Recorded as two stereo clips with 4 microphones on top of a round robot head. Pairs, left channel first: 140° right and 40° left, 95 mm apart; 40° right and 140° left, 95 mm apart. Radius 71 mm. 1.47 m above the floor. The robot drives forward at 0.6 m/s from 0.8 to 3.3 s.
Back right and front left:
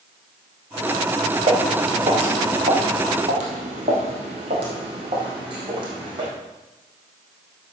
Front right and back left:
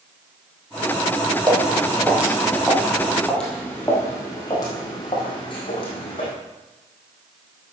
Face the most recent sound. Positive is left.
turn(degrees=-5)